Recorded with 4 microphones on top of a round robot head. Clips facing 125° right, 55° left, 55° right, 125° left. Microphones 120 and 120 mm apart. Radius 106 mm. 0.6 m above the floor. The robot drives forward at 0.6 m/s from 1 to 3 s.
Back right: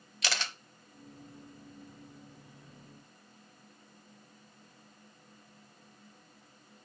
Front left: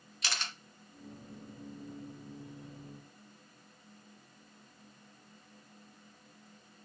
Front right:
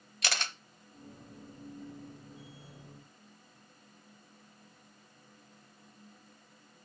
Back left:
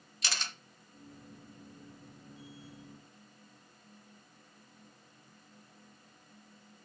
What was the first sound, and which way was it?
A camera shutter, 95° right.